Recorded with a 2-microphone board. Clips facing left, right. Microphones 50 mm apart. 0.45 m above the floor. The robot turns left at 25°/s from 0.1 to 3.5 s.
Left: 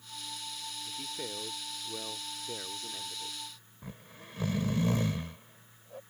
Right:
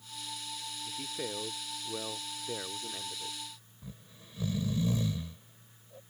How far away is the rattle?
I don't hear a rattle.